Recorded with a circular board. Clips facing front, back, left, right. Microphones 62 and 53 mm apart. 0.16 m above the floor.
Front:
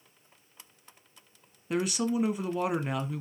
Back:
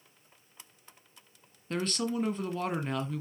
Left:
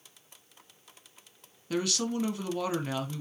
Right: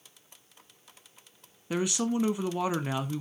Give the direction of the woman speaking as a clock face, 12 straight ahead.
2 o'clock.